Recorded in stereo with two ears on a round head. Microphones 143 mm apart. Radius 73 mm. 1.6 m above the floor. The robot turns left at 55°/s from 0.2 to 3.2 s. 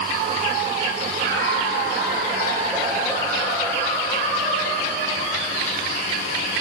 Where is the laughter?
95° right, 6 m; by 5.4 s 155° left, 6 m.